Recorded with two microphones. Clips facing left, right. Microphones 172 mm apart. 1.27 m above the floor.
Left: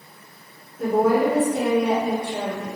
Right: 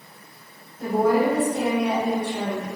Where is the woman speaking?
65° left (ahead or behind), 2.0 m.